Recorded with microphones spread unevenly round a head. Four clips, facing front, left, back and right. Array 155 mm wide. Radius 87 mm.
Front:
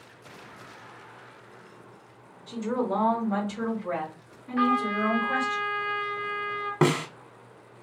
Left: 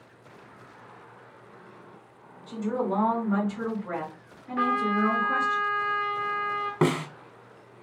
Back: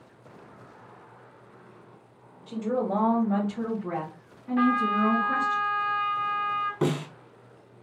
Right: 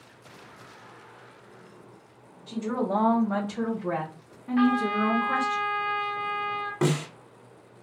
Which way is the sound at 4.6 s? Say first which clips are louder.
Right 2 dB, back 1 dB; 160° right.